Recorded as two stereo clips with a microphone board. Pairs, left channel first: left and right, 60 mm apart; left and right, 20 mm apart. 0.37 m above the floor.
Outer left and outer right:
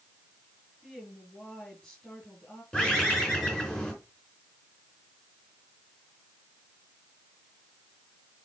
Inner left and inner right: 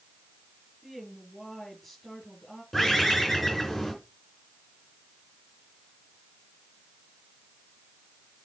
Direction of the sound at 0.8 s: 10° left (ahead or behind).